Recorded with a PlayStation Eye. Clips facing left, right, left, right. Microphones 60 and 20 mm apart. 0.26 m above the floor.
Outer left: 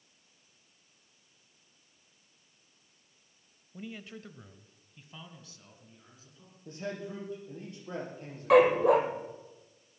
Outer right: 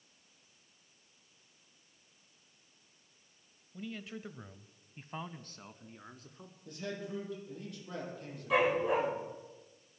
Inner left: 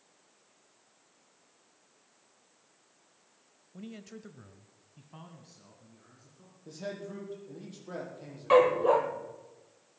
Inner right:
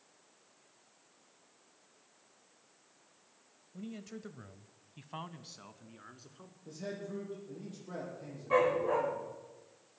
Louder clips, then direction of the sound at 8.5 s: Outer left 8 dB, inner left 6 dB; 70° left (ahead or behind).